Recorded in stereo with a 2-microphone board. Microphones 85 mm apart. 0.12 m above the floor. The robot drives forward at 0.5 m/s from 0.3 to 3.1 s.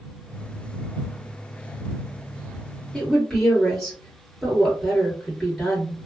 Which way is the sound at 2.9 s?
5° left (ahead or behind).